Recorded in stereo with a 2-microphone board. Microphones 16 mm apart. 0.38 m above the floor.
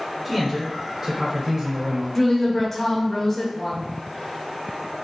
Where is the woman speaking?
20° left (ahead or behind), 0.9 m.